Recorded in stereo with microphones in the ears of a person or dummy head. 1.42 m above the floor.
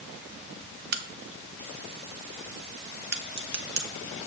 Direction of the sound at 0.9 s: 55° right (ahead or behind).